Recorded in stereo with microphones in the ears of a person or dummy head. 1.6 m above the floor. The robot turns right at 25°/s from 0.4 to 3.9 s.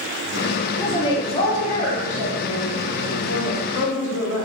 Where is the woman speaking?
15° left, 1.8 m; by 4.5 s 95° left, 1.8 m.